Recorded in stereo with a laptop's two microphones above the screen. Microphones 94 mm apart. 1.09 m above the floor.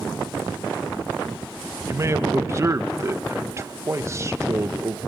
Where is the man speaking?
30° right (ahead or behind), 1.0 m.